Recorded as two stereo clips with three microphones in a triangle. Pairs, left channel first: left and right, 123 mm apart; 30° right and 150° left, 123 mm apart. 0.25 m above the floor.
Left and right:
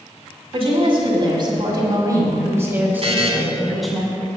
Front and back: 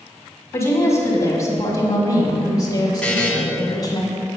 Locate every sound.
0.5 s a woman speaking: 90° right, 2 m; by 4.0 s 5° left, 1.8 m
3.0 s a buzzer: 110° right, 1.7 m